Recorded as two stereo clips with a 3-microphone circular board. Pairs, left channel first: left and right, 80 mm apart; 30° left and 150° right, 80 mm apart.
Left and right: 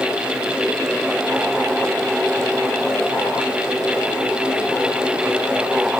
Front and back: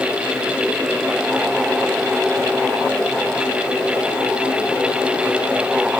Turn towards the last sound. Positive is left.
No sound to turn to.